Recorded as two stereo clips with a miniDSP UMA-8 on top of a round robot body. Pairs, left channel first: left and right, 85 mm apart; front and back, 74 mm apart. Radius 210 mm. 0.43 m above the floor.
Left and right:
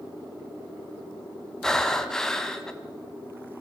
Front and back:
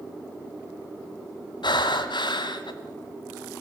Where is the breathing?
5° left, 1.9 m.